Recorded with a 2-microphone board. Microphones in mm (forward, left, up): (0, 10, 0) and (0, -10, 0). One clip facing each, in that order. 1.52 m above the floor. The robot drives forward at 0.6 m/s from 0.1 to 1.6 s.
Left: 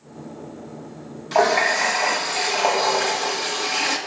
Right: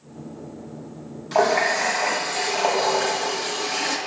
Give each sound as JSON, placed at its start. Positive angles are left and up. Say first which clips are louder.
{"t": 1.3, "sound": "a running tap", "louder": "left 1 dB", "side_deg": 10, "distance_m": 1.2}